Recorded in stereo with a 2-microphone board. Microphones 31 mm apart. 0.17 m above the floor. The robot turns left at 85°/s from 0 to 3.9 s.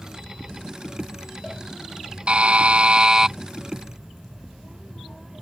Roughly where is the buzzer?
Ahead right.